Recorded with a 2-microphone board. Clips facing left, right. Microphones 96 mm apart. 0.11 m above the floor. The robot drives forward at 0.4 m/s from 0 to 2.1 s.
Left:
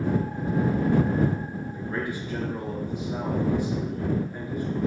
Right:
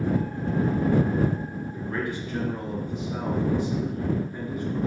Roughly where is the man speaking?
Centre.